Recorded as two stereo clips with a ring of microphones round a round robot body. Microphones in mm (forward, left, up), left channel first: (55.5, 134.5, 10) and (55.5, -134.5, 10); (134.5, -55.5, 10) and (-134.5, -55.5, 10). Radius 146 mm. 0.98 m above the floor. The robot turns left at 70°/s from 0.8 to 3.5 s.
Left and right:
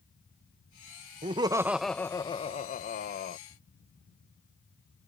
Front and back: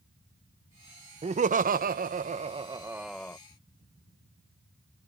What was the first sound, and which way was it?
Laughter, 135° right.